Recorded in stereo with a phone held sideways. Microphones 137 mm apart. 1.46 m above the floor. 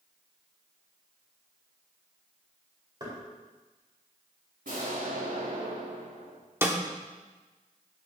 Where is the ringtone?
No ringtone in this recording.